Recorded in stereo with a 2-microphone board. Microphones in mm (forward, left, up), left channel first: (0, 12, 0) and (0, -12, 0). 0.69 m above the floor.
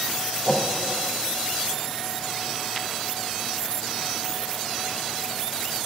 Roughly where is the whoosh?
Centre.